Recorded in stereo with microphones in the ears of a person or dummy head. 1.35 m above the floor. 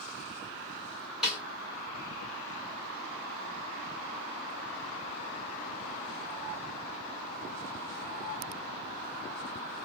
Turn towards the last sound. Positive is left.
turn(degrees=-5)  # may be behind; listen again after turning